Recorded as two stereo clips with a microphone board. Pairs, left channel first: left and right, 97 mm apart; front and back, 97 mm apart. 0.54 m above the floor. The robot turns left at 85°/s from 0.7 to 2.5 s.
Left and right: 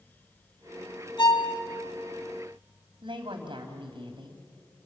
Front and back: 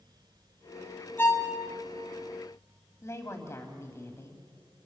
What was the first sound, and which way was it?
A violin, 65° left.